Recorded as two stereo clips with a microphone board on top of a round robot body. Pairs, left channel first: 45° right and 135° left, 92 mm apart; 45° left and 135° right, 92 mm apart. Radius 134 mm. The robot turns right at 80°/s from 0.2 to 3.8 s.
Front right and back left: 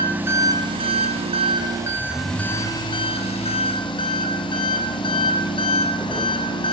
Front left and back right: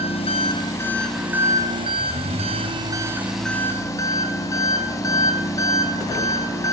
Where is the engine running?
60° left, 4.5 m; by 6.7 s 10° right, 4.5 m.